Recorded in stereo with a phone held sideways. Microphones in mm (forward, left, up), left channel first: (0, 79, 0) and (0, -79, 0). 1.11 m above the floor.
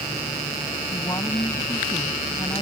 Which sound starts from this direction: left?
A woman speaking, at 0.9 s.